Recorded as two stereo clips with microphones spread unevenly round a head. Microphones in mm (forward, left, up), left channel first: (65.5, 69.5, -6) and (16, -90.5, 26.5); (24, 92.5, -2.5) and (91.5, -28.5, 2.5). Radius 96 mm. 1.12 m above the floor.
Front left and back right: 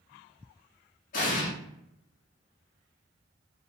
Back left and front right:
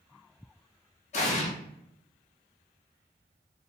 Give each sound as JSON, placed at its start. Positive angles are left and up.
{"t": 1.1, "sound": "an explosion", "azimuth_deg": 120, "distance_m": 0.7}